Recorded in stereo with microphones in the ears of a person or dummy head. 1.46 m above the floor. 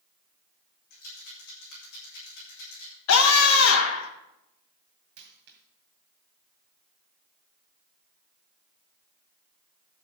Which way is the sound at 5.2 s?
45° right (ahead or behind).